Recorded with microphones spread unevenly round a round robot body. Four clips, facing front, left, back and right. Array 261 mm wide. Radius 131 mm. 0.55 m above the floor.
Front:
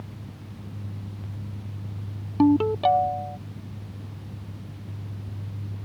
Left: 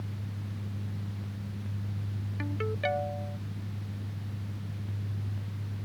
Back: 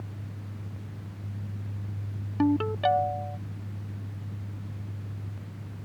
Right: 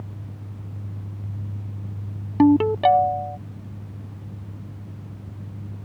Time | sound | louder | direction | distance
2.4 | a ringtone | right 18 dB, front 5 dB | 75° right | ?